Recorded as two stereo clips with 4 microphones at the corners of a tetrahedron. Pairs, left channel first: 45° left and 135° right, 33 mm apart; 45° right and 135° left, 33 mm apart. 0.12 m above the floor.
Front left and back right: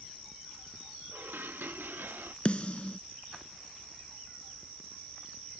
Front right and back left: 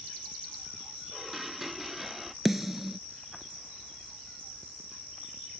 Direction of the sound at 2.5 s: 60° left.